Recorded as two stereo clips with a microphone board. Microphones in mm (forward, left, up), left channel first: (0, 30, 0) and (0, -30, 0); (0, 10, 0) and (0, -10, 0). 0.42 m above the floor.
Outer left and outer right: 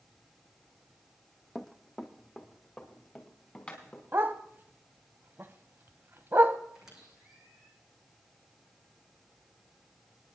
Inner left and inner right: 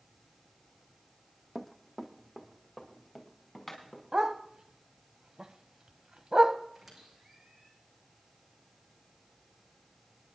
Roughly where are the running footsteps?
Centre.